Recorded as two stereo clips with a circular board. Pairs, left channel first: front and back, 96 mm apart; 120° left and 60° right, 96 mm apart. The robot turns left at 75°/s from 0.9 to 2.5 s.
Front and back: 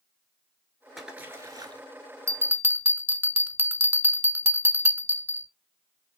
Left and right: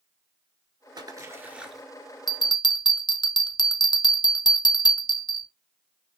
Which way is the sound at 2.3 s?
135° left.